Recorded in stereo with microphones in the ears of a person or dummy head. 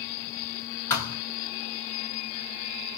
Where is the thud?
10° left (ahead or behind), 1.7 m.